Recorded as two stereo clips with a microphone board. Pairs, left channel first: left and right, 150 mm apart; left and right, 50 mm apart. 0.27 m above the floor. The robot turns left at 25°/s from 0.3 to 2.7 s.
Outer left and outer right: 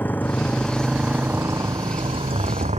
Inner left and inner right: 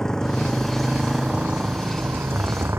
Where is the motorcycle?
10° left; by 2.8 s 50° right.